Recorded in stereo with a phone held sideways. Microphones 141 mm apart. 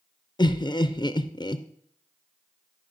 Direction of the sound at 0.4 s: 30° left (ahead or behind).